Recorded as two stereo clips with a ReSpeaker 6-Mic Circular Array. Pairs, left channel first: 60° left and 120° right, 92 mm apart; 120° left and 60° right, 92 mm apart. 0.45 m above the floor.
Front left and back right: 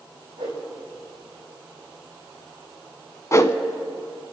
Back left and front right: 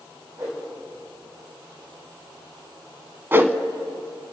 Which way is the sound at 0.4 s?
110° right.